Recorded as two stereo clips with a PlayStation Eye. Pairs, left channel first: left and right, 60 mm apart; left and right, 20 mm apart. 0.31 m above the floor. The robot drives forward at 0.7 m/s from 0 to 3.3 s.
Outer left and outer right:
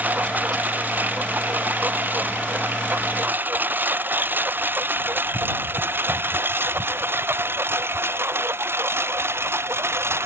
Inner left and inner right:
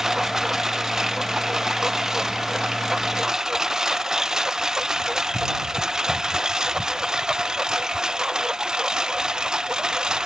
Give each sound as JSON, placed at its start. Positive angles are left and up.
{"t": 0.0, "sound": "a lawn mower", "side_deg": -25}